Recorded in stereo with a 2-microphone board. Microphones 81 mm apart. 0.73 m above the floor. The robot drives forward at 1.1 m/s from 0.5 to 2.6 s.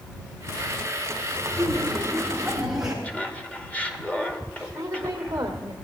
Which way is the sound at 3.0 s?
15° left (ahead or behind).